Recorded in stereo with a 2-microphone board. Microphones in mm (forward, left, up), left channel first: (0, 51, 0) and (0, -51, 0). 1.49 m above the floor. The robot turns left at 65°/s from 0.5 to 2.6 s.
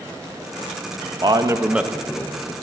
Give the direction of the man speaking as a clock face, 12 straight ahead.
4 o'clock.